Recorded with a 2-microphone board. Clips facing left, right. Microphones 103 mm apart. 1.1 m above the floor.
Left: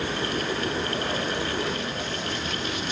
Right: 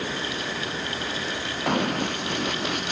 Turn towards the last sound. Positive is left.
turn(degrees=-50)  # may be behind; listen again after turning